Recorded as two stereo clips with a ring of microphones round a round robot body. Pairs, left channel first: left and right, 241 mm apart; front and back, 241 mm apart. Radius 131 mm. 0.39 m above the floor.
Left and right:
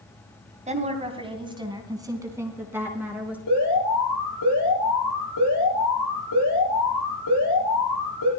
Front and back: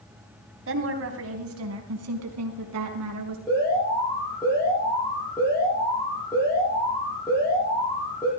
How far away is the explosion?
I don't hear an explosion.